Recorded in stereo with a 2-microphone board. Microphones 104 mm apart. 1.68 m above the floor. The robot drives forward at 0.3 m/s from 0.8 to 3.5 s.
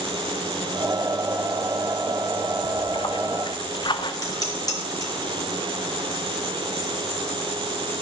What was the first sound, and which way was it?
A splash, 50° left (ahead or behind).